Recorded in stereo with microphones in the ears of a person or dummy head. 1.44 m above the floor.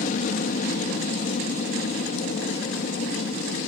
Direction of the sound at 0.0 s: 45° left (ahead or behind).